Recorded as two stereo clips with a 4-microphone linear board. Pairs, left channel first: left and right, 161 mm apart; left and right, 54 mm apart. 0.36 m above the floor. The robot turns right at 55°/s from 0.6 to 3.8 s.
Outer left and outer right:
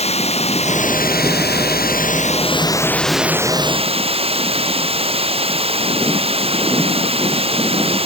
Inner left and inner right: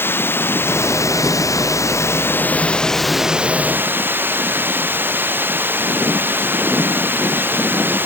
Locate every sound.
0.0 s running water: 40° left; by 8.1 s 140° right